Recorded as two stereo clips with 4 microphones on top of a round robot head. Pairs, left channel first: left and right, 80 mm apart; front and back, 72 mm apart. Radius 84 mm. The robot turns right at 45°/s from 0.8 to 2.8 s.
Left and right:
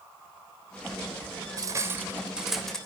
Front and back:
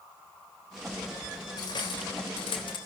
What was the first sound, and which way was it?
Cutlery clinking, 45° right.